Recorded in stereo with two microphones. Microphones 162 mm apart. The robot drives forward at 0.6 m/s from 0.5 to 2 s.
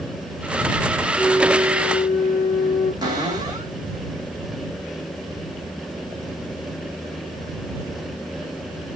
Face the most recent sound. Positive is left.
turn(degrees=-25)  # may be behind; listen again after turning